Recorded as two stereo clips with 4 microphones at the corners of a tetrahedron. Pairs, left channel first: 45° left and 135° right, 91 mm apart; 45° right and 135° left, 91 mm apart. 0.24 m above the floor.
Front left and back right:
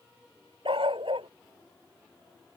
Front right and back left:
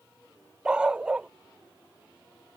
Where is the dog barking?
145° right.